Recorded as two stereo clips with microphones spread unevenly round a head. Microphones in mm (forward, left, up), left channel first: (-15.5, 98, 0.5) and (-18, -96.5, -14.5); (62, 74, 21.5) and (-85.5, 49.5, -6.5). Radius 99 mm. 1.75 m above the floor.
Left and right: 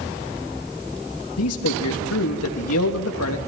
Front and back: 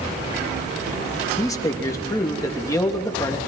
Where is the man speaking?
80° left, 3 m.